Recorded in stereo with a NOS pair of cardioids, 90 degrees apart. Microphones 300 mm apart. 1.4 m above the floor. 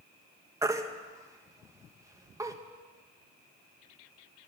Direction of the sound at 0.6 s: 10° right.